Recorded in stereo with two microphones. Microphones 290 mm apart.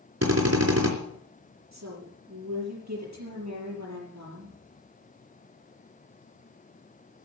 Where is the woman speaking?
70° right (ahead or behind), 6 m.